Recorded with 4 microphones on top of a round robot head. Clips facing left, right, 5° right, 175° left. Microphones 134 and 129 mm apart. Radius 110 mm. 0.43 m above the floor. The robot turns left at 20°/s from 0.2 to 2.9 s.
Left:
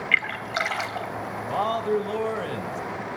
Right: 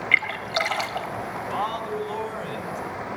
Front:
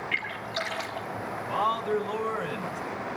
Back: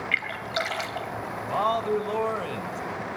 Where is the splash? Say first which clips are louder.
Right 2 dB, back 3 dB; 145° right, 3 m; by 1.1 s 160° right, 3 m.